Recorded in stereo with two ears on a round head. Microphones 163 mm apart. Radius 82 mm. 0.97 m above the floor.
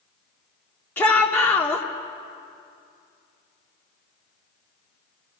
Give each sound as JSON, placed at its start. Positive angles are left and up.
{"t": 1.0, "sound": "a shout", "side_deg": 10, "distance_m": 2.0}